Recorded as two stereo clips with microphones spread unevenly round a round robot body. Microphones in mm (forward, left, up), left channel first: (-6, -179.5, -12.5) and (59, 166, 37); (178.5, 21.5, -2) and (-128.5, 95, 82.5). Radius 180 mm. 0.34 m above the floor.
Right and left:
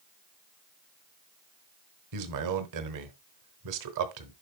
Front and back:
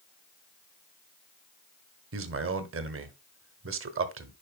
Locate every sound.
2.1 s a man speaking: 110° left, 1.3 m